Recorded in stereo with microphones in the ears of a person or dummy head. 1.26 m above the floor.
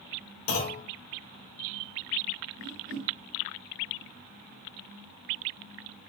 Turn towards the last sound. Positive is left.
turn(degrees=-60)  # may be behind; listen again after turning